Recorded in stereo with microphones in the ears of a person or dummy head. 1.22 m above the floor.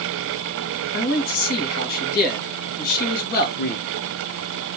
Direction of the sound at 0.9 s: 50° left (ahead or behind).